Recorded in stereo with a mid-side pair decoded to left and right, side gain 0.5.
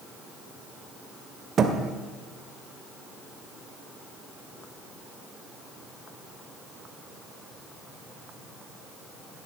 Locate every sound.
1.6 s a thud: 45° right, 1.9 m